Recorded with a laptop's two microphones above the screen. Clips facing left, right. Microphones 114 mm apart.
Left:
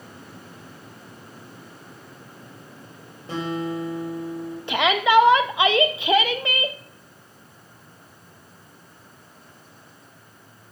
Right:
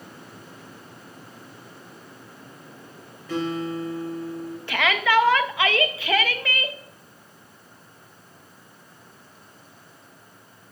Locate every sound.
3.3 s a guitar: 30° left (ahead or behind), 2.5 m
4.7 s a shout: 20° left (ahead or behind), 0.7 m